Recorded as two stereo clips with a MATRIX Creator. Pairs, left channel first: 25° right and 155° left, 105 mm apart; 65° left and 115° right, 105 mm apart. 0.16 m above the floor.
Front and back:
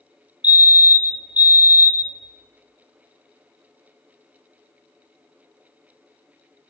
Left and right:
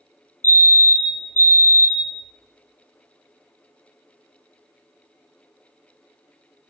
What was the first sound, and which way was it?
A fire alarm, 100° left.